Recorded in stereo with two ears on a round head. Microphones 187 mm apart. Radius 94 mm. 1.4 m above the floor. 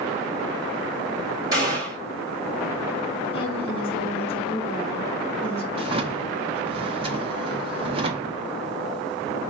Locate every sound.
1.5 s a gunshot: 20° right (ahead or behind), 2 m
3.3 s a woman speaking: 25° left (ahead or behind), 1.1 m
5.7 s a drawer: 25° right (ahead or behind), 0.5 m